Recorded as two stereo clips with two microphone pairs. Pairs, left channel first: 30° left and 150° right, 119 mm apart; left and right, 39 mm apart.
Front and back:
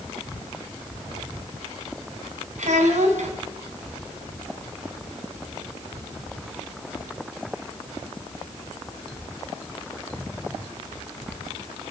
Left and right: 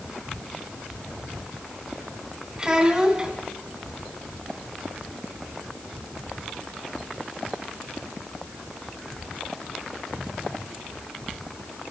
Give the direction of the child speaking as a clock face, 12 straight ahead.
5 o'clock.